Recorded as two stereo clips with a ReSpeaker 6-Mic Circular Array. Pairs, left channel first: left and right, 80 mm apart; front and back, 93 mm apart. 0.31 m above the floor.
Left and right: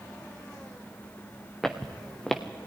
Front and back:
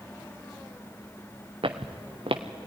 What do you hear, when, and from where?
1.6 s footsteps: 175° left, 1.6 m